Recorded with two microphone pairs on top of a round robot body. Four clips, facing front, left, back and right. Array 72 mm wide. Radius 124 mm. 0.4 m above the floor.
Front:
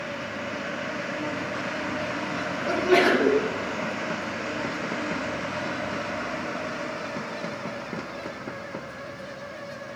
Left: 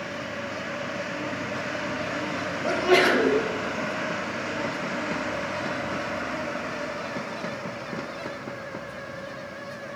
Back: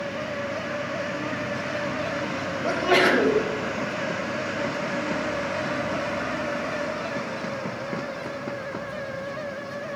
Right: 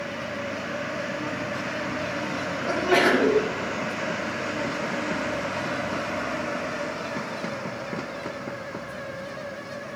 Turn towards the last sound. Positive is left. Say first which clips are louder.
# left 1 dB, even
turn(degrees=150)